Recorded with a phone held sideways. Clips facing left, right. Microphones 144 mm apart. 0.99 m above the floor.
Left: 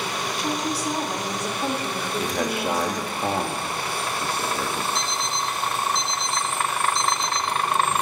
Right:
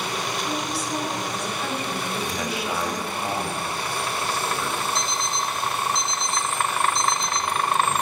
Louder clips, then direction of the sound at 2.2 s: Left 3 dB; 55° left (ahead or behind).